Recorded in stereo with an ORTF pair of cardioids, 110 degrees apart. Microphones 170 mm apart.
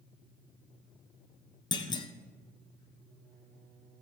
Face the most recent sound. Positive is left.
turn(degrees=25)